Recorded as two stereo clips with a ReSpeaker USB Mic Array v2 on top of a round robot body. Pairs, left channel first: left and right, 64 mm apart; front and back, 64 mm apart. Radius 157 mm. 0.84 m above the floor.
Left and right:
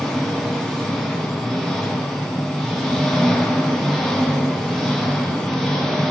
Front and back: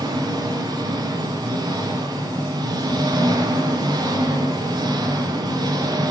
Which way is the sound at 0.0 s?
175° left.